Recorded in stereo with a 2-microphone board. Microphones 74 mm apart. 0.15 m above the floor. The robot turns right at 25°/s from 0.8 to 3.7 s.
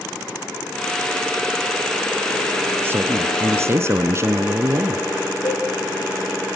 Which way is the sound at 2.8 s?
30° right (ahead or behind).